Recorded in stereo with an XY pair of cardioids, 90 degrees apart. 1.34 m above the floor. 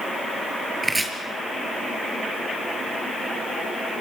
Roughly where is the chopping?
Ahead.